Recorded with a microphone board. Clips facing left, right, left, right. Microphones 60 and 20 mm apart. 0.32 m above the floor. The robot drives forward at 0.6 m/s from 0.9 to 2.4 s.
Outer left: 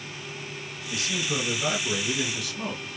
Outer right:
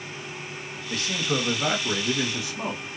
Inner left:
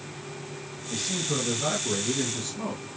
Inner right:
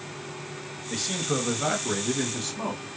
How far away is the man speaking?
About 1.1 m.